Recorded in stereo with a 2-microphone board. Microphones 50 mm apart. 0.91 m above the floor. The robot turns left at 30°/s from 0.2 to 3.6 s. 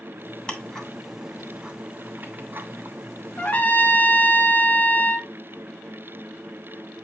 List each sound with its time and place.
0.5 s ticking: 15° left (ahead or behind), 2.5 m; by 3.6 s 75° right (ahead or behind), 2.5 m
3.4 s a trumpet: 30° left (ahead or behind), 0.9 m; by 5.3 s 35° left (ahead or behind), 0.9 m